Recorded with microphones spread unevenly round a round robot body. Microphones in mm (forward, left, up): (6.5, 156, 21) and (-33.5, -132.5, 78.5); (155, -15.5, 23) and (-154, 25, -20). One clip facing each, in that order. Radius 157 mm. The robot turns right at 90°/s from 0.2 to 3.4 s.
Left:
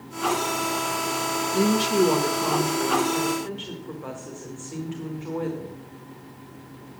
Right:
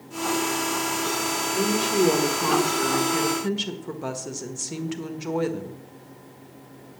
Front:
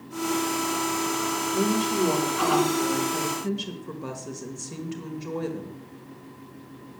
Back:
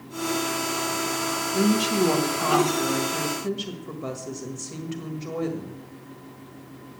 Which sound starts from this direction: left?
A woman speaking, at 1.5 s.